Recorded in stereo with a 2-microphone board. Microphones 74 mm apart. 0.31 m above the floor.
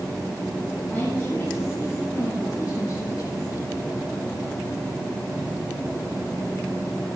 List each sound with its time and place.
0.9 s a woman speaking: 25° left (ahead or behind), 3 m; by 3.7 s 55° left (ahead or behind), 5.5 m